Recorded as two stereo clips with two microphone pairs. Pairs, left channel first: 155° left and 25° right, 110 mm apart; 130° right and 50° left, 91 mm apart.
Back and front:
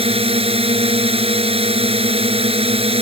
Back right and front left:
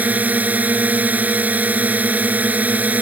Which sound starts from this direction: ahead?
A drone, at 0.0 s.